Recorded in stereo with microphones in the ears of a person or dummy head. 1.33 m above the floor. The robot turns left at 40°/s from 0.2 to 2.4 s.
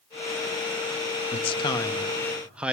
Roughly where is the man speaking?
Ahead left.